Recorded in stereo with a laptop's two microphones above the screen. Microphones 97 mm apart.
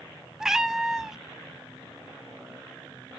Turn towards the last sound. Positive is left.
turn(degrees=-5)  # may be behind; listen again after turning